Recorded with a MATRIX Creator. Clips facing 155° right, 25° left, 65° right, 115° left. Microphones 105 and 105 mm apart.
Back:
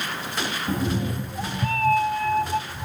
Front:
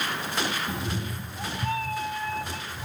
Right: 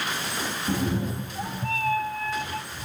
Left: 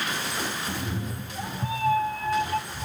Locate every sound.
0.7 s a cat meowing: 110° right, 0.6 m; by 2.9 s 155° left, 0.9 m